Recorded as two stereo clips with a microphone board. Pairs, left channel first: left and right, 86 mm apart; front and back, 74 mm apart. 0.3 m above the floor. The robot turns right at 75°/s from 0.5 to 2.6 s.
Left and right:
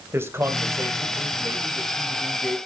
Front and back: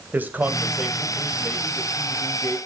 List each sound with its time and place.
0.1 s a man speaking: 130° right, 1.5 m; by 2.6 s 25° left, 1.5 m